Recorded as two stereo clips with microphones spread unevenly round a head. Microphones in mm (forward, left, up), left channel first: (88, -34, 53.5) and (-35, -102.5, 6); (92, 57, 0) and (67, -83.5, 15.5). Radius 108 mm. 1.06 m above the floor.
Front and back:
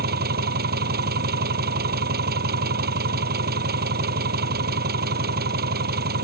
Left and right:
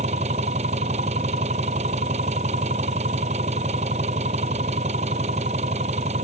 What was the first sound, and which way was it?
An engine running, 160° right.